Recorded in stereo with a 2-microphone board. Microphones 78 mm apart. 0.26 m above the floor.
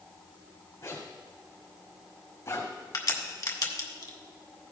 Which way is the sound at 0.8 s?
45° left (ahead or behind).